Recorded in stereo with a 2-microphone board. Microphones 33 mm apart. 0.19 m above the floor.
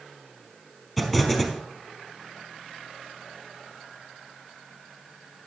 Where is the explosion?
Centre (ahead or behind), 4.5 m.